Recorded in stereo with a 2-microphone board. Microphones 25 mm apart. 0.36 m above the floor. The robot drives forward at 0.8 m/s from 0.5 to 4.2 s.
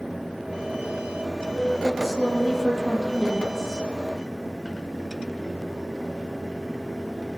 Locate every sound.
1.8 s a woman speaking: 10° right (ahead or behind), 9.5 m